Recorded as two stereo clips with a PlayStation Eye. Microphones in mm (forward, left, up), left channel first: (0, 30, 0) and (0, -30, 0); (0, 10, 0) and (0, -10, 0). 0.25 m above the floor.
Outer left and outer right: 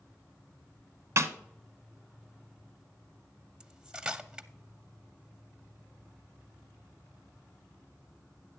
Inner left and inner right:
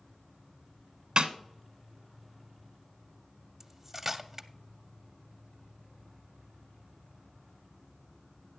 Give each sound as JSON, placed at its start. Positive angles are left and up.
{"t": 0.0, "sound": "an insect", "side_deg": 45, "distance_m": 4.5}
{"t": 1.2, "sound": "a snare drum", "side_deg": -55, "distance_m": 0.8}
{"t": 3.6, "sound": "cutlery clinking", "side_deg": -15, "distance_m": 0.5}